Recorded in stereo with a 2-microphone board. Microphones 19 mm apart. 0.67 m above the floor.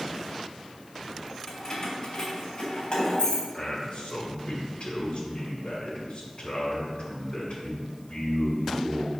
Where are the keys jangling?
40° left (ahead or behind), 2 m; by 3.4 s 60° left (ahead or behind), 3.5 m.